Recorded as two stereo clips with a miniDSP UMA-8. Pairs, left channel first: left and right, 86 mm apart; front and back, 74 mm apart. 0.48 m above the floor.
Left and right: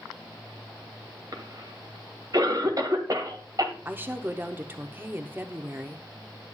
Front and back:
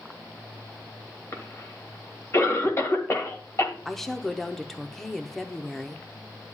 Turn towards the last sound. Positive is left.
turn(degrees=-80)